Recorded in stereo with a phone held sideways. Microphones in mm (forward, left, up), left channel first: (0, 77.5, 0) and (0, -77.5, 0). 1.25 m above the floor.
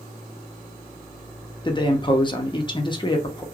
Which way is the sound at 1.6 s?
30° left (ahead or behind).